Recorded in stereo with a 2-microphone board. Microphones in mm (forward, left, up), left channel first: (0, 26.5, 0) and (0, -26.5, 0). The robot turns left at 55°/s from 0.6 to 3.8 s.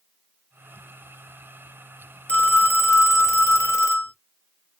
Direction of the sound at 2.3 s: 150° left.